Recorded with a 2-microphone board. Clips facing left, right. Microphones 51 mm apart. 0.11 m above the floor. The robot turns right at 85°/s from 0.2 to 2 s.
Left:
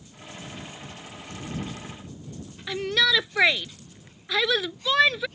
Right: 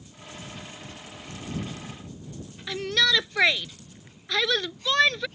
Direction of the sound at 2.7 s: 5° left (ahead or behind).